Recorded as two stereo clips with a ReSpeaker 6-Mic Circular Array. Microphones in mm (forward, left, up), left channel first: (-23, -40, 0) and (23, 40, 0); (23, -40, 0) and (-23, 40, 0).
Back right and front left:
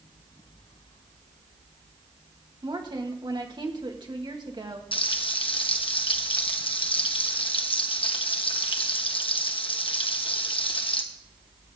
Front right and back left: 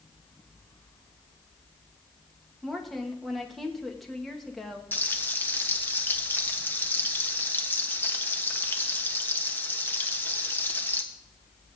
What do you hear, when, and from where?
2.6 s a woman speaking: 30° left, 2 m
4.9 s frying: 130° right, 1.3 m